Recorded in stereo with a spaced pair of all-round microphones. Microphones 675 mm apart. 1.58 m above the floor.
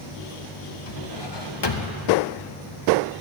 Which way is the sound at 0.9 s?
40° left (ahead or behind).